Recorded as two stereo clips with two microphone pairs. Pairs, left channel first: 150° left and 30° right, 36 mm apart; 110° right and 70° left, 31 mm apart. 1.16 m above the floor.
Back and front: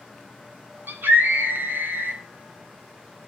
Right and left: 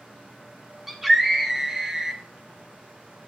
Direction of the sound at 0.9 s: 10° right.